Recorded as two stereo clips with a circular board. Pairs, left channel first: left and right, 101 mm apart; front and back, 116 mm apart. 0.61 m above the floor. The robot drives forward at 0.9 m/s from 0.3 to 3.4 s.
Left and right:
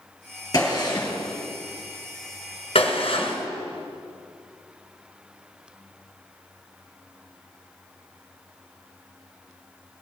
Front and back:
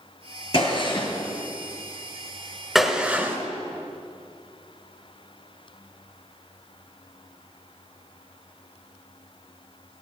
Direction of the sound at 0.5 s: 40° left.